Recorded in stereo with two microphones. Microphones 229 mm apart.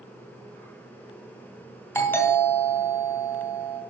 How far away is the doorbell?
About 2.5 m.